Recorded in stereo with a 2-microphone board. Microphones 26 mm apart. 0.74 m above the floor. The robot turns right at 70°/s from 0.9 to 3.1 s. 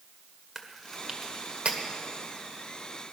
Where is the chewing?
10° left (ahead or behind), 1.7 m; by 1.8 s 50° right (ahead or behind), 1.7 m.